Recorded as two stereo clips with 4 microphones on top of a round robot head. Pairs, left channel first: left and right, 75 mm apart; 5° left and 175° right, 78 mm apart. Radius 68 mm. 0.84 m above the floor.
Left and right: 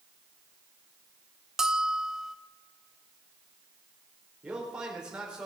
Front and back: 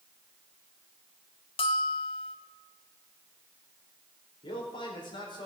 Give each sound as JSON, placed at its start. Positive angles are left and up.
{"t": 1.6, "sound": "a bell", "azimuth_deg": -5, "distance_m": 1.0}
{"t": 4.4, "sound": "a man speaking", "azimuth_deg": -10, "distance_m": 4.0}